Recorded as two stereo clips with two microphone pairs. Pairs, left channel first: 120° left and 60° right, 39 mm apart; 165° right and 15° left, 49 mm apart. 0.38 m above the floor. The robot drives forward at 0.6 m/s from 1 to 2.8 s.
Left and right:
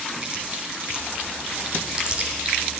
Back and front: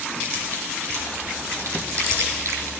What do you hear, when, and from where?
0.2 s chewing: straight ahead, 3.5 m